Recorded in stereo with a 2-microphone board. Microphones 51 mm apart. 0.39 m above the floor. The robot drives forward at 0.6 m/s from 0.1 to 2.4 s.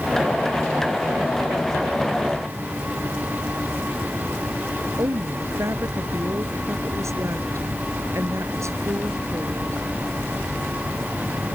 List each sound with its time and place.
5.0 s a woman speaking: 75° right (ahead or behind)